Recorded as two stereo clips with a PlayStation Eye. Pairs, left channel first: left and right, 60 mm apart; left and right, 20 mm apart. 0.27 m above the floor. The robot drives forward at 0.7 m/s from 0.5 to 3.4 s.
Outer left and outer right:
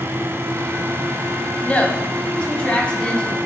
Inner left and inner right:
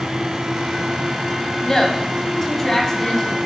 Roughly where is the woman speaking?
Left.